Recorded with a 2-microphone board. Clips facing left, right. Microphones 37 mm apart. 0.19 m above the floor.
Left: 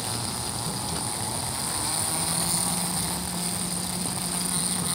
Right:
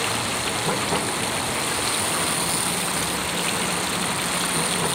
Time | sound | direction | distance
0.0 | running water | 55° right (ahead or behind) | ?